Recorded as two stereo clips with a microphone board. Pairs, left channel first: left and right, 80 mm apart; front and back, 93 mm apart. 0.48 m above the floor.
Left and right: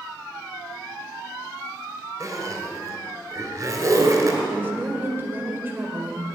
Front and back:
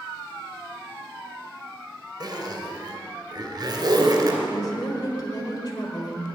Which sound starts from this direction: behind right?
A zipper, at 2.2 s.